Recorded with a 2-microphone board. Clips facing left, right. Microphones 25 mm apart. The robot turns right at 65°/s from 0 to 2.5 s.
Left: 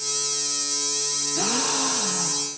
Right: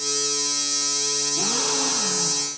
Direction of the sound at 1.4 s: 140° left.